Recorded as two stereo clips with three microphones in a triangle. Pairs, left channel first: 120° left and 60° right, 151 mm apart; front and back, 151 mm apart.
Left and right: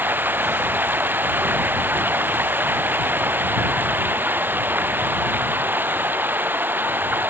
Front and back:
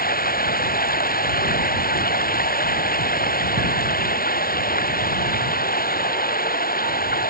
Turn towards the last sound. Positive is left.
turn(degrees=20)